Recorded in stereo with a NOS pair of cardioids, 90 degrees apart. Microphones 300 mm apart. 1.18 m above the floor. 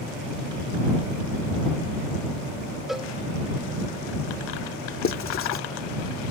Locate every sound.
2.9 s a cowbell: straight ahead
5.0 s writing: 40° left